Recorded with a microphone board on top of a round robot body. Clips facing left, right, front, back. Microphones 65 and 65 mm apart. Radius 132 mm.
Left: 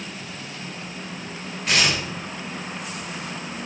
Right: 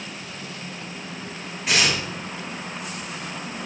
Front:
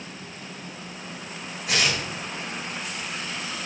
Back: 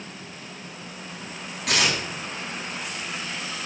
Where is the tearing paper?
175° right, 3.5 m.